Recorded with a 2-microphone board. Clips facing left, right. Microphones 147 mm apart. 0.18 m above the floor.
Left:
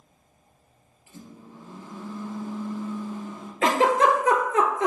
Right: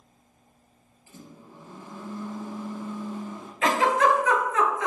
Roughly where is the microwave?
Right.